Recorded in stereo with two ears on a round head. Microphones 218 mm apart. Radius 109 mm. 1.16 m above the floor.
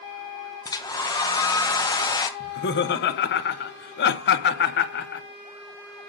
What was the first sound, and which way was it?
A hair dryer, 15° left (ahead or behind).